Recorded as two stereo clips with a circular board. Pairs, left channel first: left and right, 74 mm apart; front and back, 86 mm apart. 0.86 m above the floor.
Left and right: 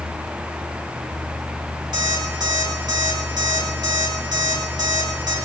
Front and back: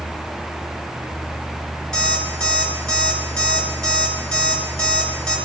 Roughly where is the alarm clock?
Right.